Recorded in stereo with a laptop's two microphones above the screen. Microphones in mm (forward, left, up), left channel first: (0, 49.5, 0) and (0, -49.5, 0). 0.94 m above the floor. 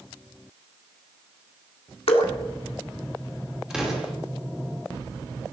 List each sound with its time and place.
2.1 s dripping: 65° left (ahead or behind), 1.5 m
3.7 s an explosion: 5° right (ahead or behind), 2.5 m